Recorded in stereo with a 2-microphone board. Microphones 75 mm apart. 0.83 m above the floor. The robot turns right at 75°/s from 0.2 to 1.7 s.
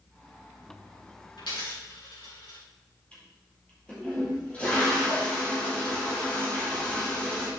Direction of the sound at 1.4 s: 80° left.